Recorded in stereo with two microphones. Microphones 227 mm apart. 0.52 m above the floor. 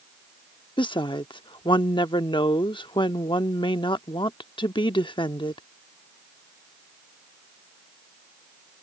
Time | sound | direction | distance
0.8 | a woman speaking | 20° left (ahead or behind) | ?